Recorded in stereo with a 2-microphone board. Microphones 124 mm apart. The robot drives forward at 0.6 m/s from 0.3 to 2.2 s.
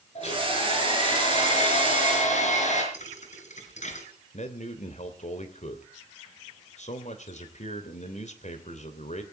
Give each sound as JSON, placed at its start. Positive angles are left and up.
{"t": 0.1, "sound": "a hair dryer", "side_deg": 60, "distance_m": 5.5}
{"t": 2.9, "sound": "a thud", "side_deg": 70, "distance_m": 3.5}
{"t": 4.3, "sound": "a man speaking", "side_deg": 70, "distance_m": 2.5}